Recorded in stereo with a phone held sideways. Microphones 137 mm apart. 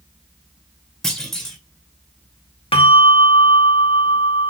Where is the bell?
45° left (ahead or behind), 1.0 m.